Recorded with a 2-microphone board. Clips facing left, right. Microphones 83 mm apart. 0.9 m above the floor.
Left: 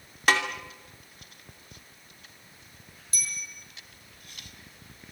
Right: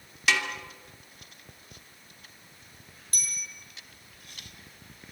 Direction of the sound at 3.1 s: 55° right (ahead or behind).